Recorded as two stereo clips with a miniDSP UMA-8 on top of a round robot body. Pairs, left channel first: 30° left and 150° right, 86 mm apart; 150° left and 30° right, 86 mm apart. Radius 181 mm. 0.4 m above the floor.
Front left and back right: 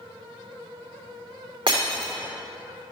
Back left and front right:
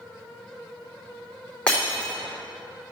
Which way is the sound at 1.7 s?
130° right.